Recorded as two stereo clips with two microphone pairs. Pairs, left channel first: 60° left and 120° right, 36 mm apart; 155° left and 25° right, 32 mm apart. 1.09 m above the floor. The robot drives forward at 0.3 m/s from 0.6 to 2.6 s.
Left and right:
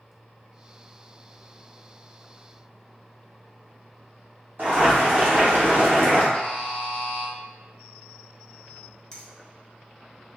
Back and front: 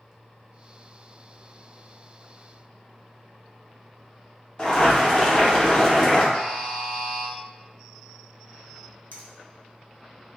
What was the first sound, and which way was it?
Boiling, 145° right.